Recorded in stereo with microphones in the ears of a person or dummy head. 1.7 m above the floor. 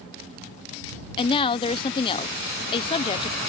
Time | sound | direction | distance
1.2 | a woman speaking | 25° left (ahead or behind) | ?